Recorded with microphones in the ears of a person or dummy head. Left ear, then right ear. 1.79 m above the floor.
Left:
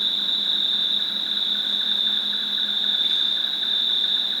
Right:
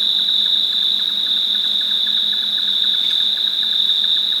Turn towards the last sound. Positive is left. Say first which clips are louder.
# right 6 dB
turn(degrees=-20)  # may be behind; listen again after turning